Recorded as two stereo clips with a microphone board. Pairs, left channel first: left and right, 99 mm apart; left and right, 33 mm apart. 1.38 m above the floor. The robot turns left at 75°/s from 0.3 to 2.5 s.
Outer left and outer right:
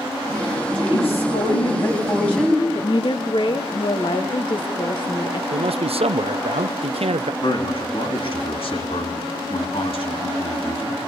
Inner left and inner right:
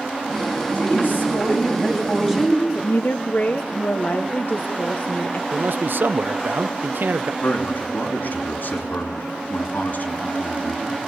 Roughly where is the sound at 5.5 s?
Right.